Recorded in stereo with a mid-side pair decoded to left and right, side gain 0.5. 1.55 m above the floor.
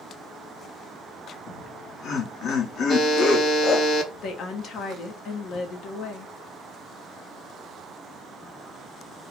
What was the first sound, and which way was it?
Laughter, 60° left.